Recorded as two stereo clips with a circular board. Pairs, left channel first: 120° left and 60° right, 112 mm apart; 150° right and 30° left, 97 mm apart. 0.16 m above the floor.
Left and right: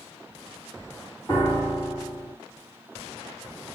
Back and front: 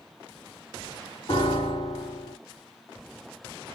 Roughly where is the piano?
Behind.